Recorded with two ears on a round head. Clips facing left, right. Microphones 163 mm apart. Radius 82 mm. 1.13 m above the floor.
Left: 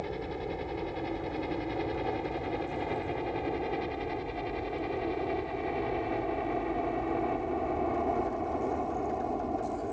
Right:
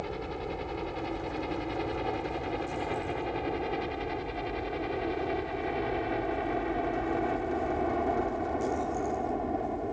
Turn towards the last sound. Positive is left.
turn(degrees=-5)  # may be behind; listen again after turning